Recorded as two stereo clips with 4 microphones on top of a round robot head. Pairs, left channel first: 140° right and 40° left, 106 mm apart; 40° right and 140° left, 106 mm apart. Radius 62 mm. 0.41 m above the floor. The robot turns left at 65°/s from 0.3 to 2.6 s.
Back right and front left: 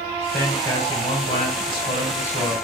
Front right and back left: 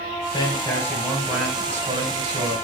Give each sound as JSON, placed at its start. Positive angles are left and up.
{"t": 0.3, "sound": "a man speaking", "azimuth_deg": -70, "distance_m": 1.2}